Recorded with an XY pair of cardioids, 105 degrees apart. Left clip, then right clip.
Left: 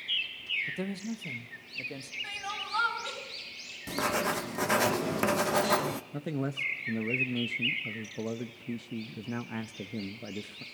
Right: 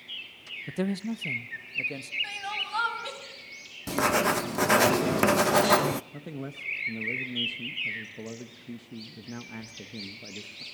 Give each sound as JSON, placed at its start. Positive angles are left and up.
{"t": 0.7, "sound": "a man speaking", "azimuth_deg": -45, "distance_m": 0.6}
{"t": 2.2, "sound": "crying", "azimuth_deg": -30, "distance_m": 6.0}
{"t": 3.9, "sound": "writing", "azimuth_deg": -40, "distance_m": 0.6}
{"t": 6.1, "sound": "a man speaking", "azimuth_deg": 30, "distance_m": 0.9}